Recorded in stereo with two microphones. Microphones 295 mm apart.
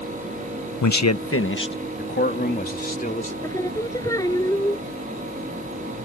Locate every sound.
0.8 s a man speaking: 75° left (ahead or behind); by 3.3 s 25° left (ahead or behind)
3.4 s singing: 10° left (ahead or behind)